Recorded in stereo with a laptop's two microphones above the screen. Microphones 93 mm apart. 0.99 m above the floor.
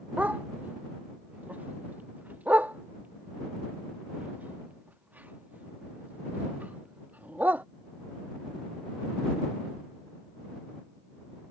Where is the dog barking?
20° right (ahead or behind).